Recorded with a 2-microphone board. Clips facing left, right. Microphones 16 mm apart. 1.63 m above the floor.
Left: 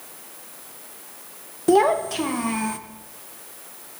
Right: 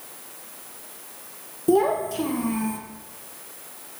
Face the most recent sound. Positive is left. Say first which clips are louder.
# left 3 dB
turn(degrees=40)  # may be behind; listen again after turning